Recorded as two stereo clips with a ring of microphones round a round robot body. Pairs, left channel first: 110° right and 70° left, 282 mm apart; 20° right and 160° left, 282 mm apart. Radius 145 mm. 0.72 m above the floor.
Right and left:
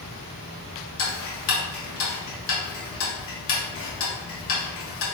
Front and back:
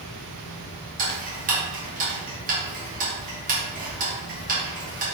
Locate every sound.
1.0 s ticking: 145° right, 1.3 m